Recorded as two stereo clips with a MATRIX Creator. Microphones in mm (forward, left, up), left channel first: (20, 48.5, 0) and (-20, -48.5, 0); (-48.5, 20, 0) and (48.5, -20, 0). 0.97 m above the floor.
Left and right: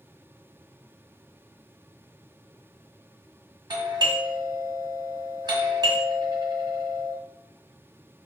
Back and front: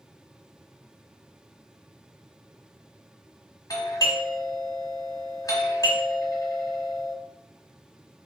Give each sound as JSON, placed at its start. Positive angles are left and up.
{"t": 3.7, "sound": "a doorbell", "azimuth_deg": -155, "distance_m": 1.2}